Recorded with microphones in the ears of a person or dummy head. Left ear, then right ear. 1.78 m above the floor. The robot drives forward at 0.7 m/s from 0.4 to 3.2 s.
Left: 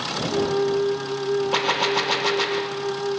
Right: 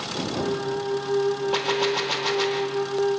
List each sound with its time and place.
1.5 s a gunshot: 5° left (ahead or behind), 0.7 m; by 3.0 s centre (ahead or behind), 1.7 m